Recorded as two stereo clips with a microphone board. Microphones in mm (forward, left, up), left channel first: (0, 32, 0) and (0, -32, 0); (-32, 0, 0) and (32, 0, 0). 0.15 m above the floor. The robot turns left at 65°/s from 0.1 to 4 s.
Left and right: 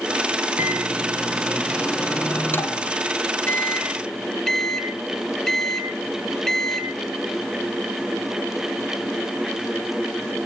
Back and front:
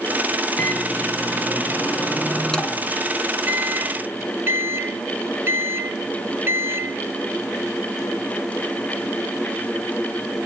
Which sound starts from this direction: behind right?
A microwave, at 0.6 s.